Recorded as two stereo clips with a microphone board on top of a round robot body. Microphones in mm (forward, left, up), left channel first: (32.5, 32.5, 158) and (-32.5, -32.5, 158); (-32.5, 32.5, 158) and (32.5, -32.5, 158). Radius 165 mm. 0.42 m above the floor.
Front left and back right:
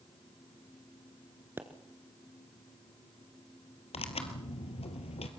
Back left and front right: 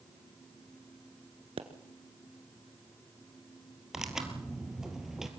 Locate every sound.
1.6 s a pop: 65° right, 1.3 m
3.9 s tearing paper: 40° left, 2.5 m